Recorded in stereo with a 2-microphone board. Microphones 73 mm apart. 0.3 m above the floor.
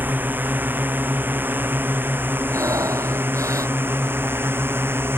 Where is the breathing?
45° right (ahead or behind).